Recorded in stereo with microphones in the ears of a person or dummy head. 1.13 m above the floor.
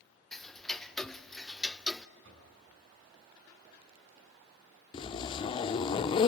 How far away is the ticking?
About 0.5 m.